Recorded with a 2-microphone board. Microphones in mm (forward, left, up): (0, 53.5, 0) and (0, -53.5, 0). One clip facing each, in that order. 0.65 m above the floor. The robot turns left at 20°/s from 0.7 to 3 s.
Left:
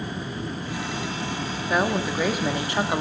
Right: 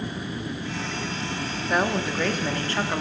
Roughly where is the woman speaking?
Centre.